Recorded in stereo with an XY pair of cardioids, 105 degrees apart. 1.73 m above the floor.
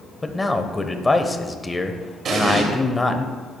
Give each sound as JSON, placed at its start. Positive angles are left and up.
{"t": 0.2, "sound": "a man speaking", "azimuth_deg": 15, "distance_m": 1.1}
{"t": 2.2, "sound": "an explosion", "azimuth_deg": -60, "distance_m": 2.5}